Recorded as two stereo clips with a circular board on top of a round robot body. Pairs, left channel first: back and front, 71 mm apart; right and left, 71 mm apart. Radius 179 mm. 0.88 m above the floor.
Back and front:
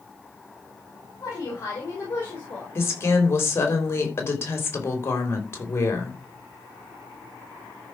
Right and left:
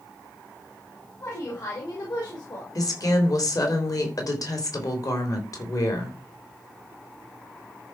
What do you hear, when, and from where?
1.2 s a woman speaking: 135° right, 4 m; by 2.6 s 120° right, 5.5 m
2.8 s a woman speaking: 125° right, 4 m